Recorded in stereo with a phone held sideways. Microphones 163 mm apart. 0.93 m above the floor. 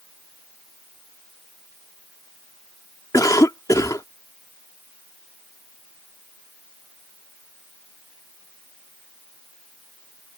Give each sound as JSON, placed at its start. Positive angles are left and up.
{"t": 3.1, "sound": "a cough", "side_deg": 20}